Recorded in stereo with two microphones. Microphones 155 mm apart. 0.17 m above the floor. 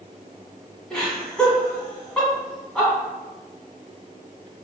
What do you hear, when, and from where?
0.9 s laughter: 5° left (ahead or behind), 1.5 m